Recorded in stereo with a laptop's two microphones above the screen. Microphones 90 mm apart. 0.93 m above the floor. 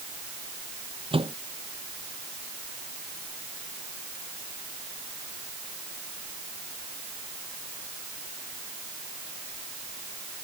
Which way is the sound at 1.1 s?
90° right.